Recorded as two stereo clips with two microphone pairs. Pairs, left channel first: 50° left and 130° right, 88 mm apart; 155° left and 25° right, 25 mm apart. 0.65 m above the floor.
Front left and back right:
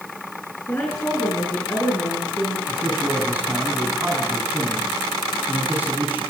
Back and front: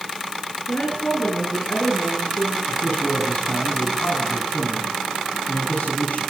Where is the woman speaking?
115° left, 9.5 m.